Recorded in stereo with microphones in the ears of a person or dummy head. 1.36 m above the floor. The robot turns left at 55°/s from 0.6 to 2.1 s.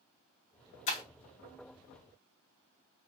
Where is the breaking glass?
30° left (ahead or behind), 0.9 m; by 1.0 s 35° left (ahead or behind), 0.9 m.